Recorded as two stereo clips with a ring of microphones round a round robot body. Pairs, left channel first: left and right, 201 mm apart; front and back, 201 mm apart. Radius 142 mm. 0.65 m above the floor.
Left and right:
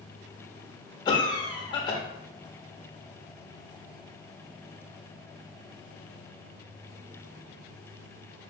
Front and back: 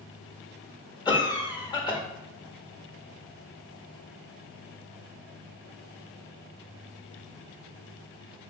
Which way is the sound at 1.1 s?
45° left.